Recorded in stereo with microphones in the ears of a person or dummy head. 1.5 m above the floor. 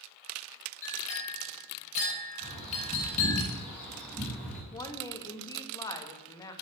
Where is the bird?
10° left (ahead or behind), 5 m.